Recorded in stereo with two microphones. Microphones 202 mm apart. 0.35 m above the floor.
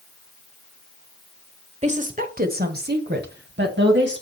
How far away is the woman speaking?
About 1.2 m.